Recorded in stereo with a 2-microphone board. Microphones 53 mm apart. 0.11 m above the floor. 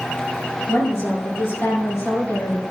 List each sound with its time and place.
0.7 s a woman speaking: 50° left (ahead or behind), 2.5 m; by 2.6 s 65° left (ahead or behind), 3.5 m